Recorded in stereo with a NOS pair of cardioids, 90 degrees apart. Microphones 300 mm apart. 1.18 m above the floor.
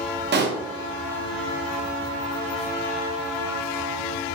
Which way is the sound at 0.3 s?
40° right.